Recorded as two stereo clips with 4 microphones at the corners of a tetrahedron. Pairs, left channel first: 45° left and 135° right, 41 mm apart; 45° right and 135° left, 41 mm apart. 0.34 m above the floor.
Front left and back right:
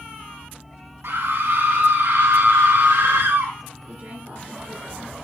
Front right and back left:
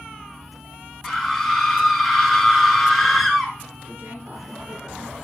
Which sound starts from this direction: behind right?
A scream, at 1.0 s.